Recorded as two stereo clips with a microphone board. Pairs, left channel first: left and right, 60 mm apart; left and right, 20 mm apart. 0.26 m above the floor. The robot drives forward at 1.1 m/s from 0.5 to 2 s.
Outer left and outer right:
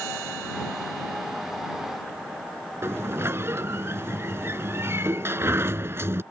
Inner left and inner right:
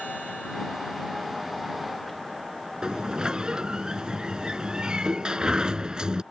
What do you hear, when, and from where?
2.8 s a sliding door: 45° right (ahead or behind)